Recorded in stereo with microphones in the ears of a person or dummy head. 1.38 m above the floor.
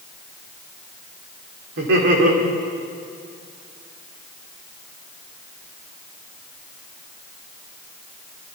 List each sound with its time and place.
1.8 s laughter: 70° right (ahead or behind), 5.5 m